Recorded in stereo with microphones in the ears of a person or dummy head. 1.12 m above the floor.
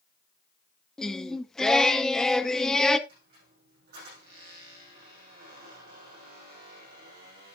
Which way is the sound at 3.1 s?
50° right (ahead or behind).